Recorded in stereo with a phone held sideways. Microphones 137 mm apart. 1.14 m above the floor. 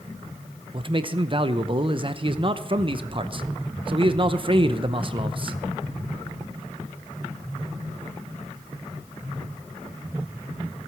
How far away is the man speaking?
About 0.8 m.